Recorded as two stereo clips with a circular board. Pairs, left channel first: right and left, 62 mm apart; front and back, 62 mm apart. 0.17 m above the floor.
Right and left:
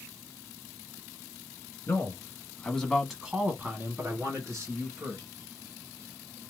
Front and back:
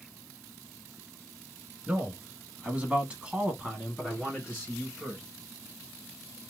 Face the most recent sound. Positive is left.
turn(degrees=95)